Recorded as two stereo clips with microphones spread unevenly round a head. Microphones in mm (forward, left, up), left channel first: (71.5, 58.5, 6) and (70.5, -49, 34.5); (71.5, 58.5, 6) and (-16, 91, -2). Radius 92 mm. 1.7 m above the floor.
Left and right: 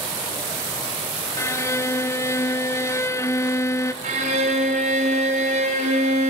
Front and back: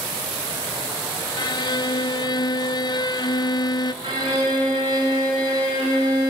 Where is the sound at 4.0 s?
130° right, 5.5 m.